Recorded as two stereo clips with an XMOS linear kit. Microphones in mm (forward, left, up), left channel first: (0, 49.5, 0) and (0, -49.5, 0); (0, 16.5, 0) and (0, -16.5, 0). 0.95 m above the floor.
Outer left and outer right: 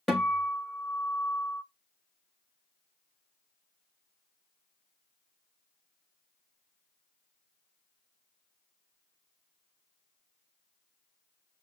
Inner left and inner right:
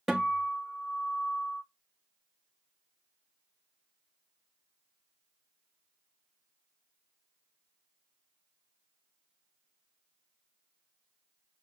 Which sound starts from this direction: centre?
A guitar, at 0.1 s.